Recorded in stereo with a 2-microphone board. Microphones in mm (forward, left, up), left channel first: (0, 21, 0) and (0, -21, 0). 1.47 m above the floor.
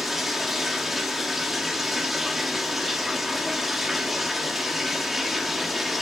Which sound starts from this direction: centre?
Running water, at 0.0 s.